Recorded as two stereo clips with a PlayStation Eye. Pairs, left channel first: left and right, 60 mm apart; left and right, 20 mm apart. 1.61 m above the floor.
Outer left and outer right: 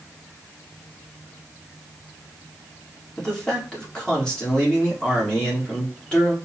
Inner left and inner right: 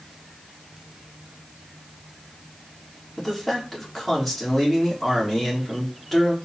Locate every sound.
3.2 s a man speaking: 15° left (ahead or behind), 2.5 m